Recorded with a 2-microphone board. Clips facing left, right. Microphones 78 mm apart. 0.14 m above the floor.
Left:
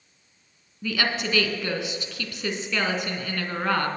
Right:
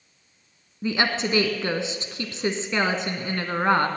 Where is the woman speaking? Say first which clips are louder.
Right 3 dB; 30° right (ahead or behind), 1.2 m.